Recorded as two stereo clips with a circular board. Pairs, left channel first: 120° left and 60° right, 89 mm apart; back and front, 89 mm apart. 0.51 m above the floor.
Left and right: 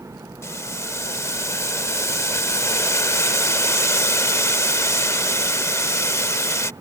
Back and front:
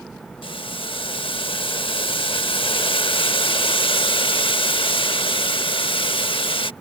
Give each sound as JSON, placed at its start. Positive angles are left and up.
{"t": 0.4, "sound": "boiling", "azimuth_deg": 175}